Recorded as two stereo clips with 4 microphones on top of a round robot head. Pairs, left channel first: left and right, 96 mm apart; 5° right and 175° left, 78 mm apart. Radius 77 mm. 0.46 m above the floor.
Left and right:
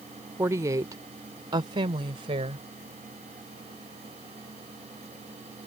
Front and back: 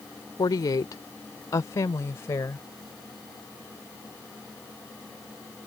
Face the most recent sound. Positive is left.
turn(degrees=-65)